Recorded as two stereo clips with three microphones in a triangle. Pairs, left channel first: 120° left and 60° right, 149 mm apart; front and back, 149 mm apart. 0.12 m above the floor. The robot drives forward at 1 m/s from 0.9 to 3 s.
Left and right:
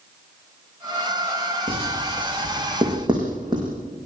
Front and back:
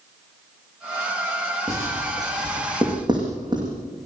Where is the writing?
110° right, 6.5 m; by 3.7 s 120° right, 7 m.